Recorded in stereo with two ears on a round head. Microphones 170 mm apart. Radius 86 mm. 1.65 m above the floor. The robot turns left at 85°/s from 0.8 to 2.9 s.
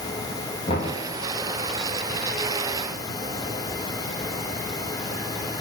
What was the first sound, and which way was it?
Knocking, 30° left (ahead or behind).